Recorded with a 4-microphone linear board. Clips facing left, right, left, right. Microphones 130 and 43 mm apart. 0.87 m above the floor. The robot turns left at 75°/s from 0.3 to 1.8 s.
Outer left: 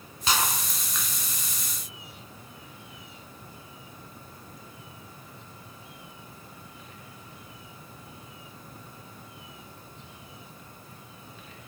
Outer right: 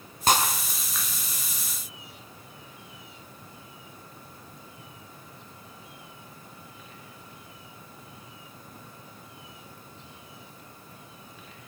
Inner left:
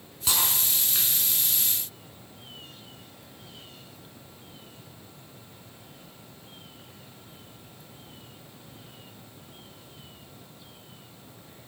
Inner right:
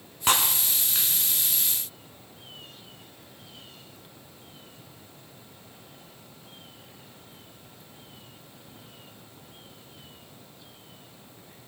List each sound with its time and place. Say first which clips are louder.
0.3 s breaking glass: outer right 4 dB, inner right 4 dB; 50° right (ahead or behind), 3 m; by 1.1 s 5° left (ahead or behind), 3 m